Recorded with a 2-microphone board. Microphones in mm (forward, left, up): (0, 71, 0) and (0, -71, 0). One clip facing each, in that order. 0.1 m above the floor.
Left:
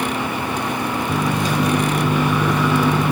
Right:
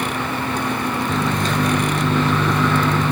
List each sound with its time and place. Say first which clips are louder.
1.1 s a microwave: left 1 dB; 10° left (ahead or behind), 1.2 m